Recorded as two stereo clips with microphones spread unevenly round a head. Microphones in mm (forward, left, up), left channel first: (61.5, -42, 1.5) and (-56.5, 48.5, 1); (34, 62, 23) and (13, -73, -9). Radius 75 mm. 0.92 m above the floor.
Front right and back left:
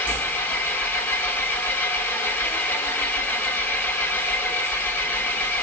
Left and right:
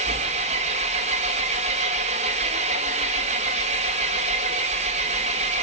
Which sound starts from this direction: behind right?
An engine running, at 0.0 s.